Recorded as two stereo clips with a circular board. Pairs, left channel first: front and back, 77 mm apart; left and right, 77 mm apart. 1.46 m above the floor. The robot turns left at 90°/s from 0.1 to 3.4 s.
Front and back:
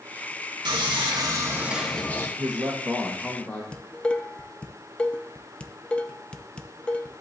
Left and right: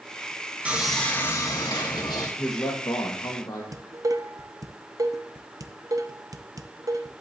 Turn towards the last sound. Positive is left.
turn(degrees=-70)